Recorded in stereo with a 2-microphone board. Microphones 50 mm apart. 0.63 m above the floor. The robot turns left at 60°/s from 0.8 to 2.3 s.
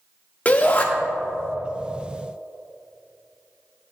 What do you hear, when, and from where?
0.5 s a shout: 30° left (ahead or behind), 1.3 m